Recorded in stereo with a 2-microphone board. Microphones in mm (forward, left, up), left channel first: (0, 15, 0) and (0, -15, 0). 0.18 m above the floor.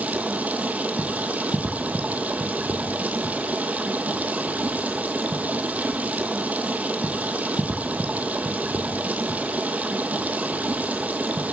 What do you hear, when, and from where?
0.0 s running water: 60° right (ahead or behind), 0.9 m